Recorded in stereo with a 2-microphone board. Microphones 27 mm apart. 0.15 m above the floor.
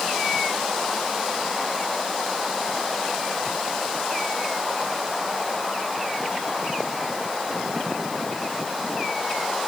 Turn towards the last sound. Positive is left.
No sound to turn to.